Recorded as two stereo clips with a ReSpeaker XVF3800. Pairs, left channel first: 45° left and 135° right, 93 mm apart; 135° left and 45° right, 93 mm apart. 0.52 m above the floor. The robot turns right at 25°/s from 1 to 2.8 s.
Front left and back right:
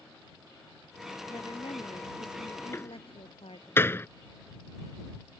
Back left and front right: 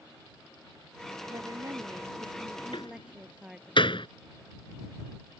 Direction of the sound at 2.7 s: 110° left.